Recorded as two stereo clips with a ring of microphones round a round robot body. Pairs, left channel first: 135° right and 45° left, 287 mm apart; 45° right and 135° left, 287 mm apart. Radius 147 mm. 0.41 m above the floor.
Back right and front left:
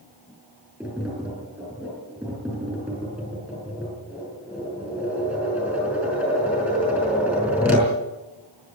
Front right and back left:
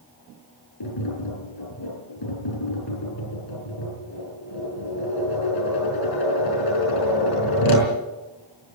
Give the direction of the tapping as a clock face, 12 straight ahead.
1 o'clock.